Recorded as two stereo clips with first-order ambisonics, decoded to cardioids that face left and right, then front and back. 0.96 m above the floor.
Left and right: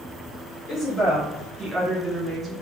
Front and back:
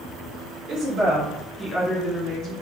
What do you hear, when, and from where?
0.7 s a woman speaking: 160° left, 0.8 m; by 2.5 s 30° right, 0.9 m